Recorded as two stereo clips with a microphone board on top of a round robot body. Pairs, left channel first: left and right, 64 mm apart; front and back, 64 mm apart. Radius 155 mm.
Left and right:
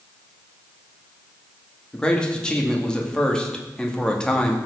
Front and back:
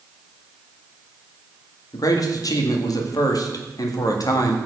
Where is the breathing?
I don't hear breathing.